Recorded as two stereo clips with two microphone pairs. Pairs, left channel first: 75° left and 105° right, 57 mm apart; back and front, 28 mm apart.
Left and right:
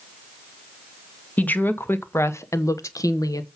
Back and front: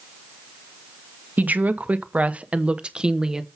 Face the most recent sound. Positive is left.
turn(degrees=70)